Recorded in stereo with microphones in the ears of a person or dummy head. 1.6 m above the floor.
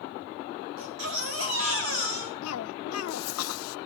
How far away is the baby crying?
About 7.5 m.